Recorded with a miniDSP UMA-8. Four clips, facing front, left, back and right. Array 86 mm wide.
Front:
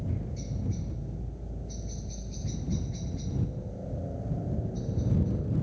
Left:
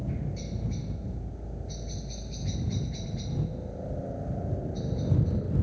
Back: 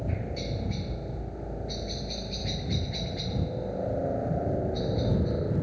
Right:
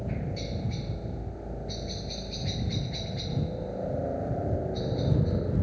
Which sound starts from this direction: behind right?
A helicopter, at 0.0 s.